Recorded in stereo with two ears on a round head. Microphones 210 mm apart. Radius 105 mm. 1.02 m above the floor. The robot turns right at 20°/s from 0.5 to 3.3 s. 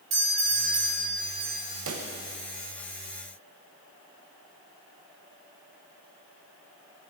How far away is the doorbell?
About 3 m.